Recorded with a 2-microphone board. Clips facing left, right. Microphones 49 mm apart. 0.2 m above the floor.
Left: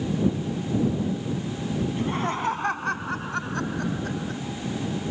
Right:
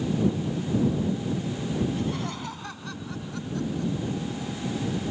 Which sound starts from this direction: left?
Laughter, at 1.9 s.